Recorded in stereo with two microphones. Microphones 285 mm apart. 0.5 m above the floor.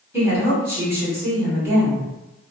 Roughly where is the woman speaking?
Centre.